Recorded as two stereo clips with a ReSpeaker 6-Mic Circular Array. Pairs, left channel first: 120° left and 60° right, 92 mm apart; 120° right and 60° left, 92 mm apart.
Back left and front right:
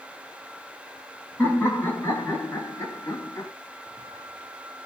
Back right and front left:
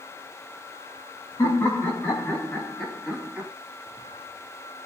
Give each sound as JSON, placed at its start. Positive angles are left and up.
{"t": 1.4, "sound": "laughter", "azimuth_deg": -175, "distance_m": 2.0}